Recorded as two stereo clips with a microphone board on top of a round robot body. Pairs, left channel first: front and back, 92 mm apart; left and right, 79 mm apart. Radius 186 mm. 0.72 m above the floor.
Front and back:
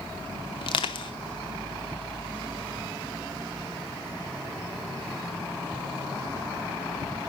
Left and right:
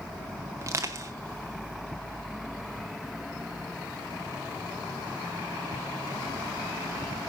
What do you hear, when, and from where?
0.6 s crushing: 30° right, 0.7 m